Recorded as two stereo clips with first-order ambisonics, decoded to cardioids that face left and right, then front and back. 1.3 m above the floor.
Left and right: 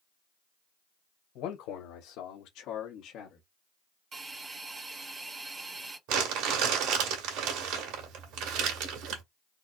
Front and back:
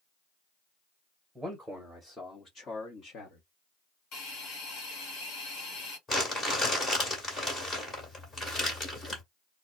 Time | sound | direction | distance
1.4 | a man speaking | 90° left | 1.6 m
4.1 | a hiss | 30° right | 1.6 m
6.1 | crumpling | 75° right | 2 m